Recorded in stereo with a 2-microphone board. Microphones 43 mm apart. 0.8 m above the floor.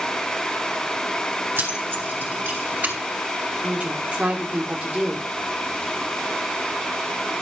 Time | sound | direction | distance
1.6 | keys jangling | 60° right (ahead or behind) | 3.5 m
3.6 | a woman speaking | 30° right (ahead or behind) | 2.5 m